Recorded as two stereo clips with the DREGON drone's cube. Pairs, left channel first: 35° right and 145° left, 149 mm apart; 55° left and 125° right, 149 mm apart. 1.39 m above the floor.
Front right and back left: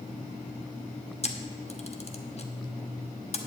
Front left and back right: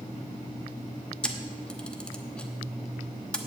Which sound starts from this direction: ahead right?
A camera shutter, at 1.2 s.